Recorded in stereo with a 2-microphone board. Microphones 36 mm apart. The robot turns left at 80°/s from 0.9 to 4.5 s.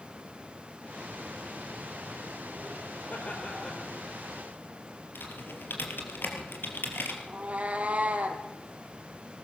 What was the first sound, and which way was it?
Laughter, 65° left.